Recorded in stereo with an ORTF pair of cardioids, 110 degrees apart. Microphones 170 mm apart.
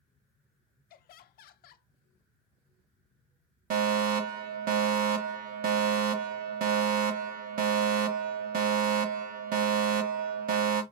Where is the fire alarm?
60° right, 1.1 m.